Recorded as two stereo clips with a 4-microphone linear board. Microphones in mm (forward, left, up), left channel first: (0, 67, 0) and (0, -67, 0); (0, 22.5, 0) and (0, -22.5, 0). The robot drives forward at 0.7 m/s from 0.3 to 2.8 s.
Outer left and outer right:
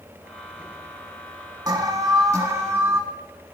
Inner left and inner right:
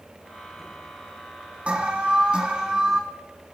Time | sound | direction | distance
1.7 | an alarm | 30° right (ahead or behind) | 1.0 m